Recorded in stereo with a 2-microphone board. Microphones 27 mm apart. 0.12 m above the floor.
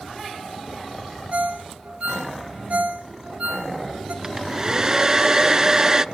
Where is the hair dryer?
25° right (ahead or behind), 0.5 m.